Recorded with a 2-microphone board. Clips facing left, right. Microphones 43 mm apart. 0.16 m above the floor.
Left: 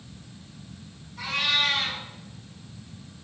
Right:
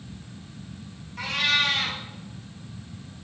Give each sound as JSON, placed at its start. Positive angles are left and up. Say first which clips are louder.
{"t": 1.2, "sound": "a cat meowing", "louder": "right 2 dB", "side_deg": -55, "distance_m": 2.0}